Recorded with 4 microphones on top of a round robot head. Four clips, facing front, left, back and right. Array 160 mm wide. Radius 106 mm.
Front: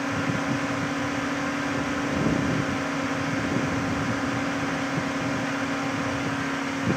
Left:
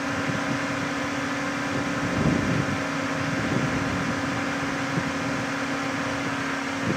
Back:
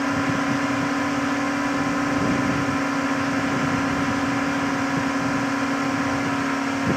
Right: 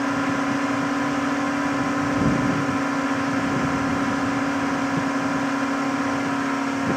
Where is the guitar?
No guitar in this recording.